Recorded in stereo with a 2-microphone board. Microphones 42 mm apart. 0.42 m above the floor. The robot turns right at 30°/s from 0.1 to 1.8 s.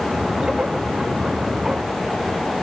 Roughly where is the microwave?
I don't hear a microwave.